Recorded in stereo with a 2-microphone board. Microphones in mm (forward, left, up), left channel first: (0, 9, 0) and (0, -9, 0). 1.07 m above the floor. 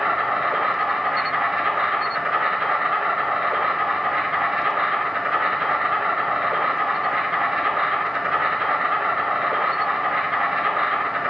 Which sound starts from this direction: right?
An insect, at 0.0 s.